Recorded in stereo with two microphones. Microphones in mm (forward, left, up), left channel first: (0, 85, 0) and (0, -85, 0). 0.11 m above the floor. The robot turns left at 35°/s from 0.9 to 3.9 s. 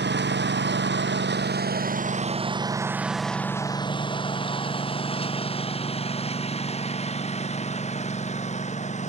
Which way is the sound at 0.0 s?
80° right.